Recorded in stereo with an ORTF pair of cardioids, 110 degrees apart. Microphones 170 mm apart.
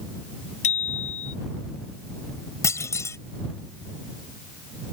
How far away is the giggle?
I don't hear a giggle.